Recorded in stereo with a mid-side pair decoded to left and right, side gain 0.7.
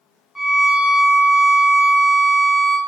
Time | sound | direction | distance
0.3 | a violin | 10° left | 0.6 m